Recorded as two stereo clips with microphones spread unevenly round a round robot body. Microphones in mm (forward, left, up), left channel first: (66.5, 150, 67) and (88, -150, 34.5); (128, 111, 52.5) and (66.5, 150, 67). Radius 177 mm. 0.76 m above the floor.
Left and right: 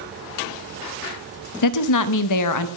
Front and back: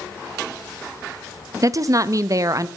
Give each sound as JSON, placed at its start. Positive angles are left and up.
{"t": 1.6, "sound": "a woman speaking", "azimuth_deg": 95, "distance_m": 0.6}